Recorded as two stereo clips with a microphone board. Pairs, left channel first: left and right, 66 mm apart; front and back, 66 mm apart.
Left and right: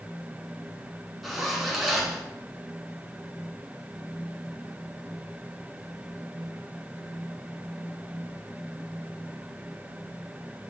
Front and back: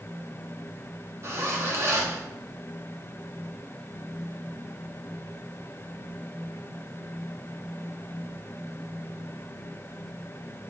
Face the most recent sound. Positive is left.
turn(degrees=-175)